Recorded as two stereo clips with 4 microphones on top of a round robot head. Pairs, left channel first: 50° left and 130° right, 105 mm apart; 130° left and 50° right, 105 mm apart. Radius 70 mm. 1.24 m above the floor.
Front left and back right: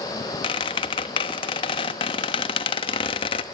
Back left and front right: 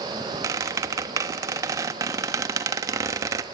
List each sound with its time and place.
0.4 s a squeak: 10° left, 1.0 m